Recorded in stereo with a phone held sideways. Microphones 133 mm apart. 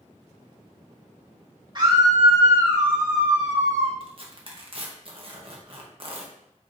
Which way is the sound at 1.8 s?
35° right (ahead or behind).